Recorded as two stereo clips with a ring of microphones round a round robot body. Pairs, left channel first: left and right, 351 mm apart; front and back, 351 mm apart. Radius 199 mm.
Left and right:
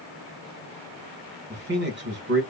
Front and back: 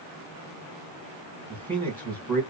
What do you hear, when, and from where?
1.5 s a man speaking: 80° right, 1.4 m